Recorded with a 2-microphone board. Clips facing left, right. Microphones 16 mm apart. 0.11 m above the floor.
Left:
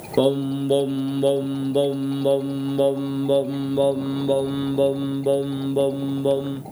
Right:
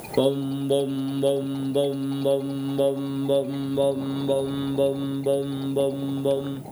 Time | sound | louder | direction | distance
0.2 | singing | left 3 dB | 10° left (ahead or behind) | ?